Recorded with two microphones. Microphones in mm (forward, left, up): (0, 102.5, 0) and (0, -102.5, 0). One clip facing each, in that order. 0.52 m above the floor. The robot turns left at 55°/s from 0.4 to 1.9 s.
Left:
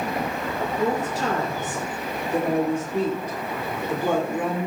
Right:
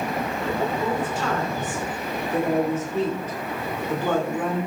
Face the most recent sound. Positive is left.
turn(degrees=15)